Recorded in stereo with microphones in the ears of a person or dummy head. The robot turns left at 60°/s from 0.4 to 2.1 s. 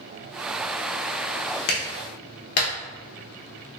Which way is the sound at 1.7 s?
80° left.